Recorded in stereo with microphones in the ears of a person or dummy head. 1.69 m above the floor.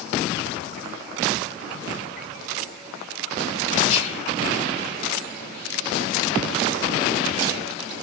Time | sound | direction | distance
3.9 | whispering | 40° left (ahead or behind) | 1.4 m